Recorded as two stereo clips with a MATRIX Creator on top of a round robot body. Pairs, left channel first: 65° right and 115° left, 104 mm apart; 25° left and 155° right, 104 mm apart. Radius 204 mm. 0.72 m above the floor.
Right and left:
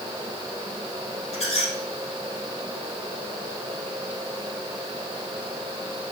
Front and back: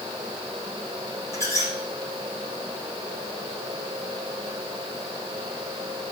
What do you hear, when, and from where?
1.3 s a squeak: 45° right, 3 m